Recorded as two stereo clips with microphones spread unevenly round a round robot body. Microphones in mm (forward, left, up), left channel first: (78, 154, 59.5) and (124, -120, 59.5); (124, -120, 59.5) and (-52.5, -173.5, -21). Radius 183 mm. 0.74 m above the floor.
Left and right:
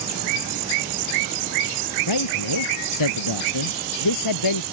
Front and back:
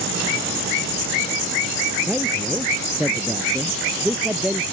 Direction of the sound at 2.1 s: 110° left.